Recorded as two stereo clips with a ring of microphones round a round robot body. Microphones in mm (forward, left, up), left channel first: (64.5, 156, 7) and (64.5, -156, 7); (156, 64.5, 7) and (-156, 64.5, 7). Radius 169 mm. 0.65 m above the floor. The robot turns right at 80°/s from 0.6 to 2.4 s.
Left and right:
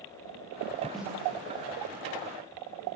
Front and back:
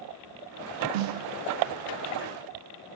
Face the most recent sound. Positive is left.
turn(degrees=-65)